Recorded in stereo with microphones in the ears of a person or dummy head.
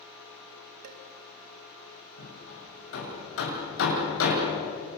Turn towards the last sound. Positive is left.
turn(degrees=80)